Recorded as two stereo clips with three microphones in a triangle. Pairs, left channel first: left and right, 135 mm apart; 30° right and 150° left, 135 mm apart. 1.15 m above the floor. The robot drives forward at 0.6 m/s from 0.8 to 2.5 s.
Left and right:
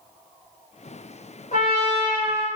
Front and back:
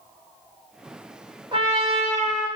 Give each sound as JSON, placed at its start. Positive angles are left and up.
{"t": 1.5, "sound": "a trumpet", "azimuth_deg": 100, "distance_m": 0.8}